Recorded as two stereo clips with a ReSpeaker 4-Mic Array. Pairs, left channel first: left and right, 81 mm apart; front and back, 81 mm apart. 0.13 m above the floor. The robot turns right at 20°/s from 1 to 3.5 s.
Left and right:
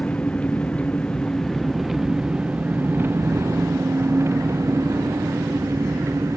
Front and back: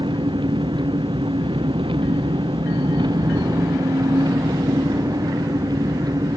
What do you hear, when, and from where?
0.0 s an engine running: 165° left; by 6.4 s 145° right